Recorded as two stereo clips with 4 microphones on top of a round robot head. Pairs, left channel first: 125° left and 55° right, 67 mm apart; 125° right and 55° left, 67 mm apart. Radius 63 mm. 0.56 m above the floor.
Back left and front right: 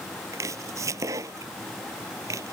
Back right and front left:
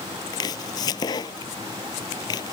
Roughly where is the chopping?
Right.